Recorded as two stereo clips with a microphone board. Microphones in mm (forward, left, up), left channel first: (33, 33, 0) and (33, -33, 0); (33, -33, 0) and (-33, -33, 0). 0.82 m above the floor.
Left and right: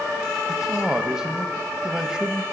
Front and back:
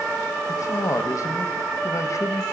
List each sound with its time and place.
0.5 s a man speaking: 10° right, 0.6 m